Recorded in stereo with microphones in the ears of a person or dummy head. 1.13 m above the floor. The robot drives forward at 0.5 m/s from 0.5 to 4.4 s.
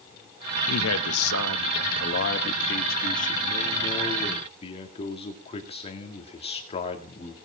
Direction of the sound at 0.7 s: 85° left.